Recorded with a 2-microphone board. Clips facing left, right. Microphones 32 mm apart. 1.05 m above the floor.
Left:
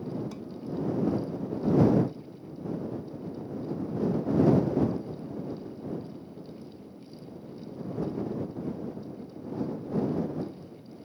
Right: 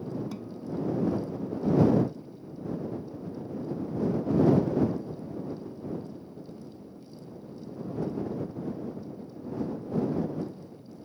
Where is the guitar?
5° right (ahead or behind).